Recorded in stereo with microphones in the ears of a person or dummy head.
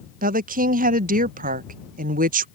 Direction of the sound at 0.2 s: 50° right (ahead or behind).